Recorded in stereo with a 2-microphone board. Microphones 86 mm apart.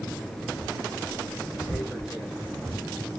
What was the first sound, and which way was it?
Tearing paper, 5° right (ahead or behind).